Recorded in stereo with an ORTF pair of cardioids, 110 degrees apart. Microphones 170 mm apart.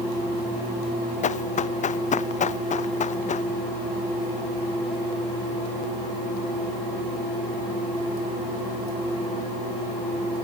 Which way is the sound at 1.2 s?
45° left.